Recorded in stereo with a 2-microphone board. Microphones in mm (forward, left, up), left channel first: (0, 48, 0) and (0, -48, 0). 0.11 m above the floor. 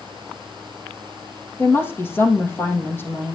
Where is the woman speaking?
25° left (ahead or behind), 4.5 m.